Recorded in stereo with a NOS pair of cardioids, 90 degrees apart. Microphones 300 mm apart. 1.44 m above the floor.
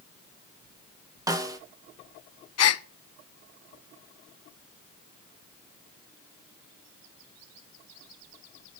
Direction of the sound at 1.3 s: 10° right.